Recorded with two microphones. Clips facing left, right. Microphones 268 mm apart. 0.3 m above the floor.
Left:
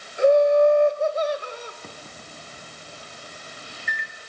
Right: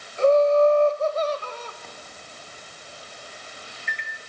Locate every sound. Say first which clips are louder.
0.2 s laughter: left 1 dB; 15° left (ahead or behind), 1.5 m
1.8 s a microwave: left 2 dB; 45° left (ahead or behind), 2.5 m